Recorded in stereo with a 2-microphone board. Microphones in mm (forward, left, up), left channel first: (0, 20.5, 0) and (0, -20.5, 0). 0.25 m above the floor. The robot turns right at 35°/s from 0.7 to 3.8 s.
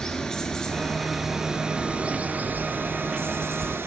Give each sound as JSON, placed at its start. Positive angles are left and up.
{"t": 0.0, "sound": "running water", "azimuth_deg": 165, "distance_m": 1.3}